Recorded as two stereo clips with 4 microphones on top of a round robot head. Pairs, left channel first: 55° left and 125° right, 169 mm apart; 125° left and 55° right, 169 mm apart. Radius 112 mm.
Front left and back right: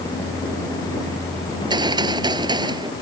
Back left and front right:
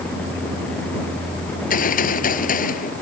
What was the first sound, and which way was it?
A gunshot, 165° left.